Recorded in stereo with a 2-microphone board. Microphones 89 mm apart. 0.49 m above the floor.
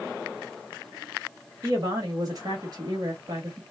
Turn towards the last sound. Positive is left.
turn(degrees=-45)  # may be behind; listen again after turning